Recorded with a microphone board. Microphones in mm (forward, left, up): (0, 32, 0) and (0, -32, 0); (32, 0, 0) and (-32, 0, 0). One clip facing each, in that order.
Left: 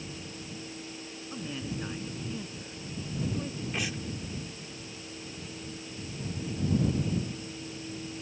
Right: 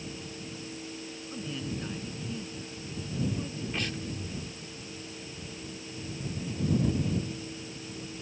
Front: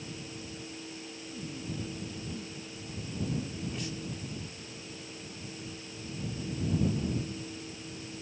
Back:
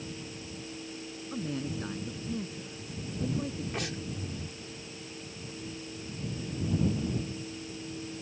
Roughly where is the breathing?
Behind.